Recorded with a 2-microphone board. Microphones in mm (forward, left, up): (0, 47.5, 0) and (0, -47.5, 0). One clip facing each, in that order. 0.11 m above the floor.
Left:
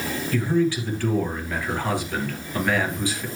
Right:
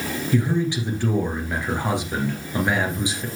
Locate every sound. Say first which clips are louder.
0.3 s a man speaking: left 1 dB; 20° right (ahead or behind), 2 m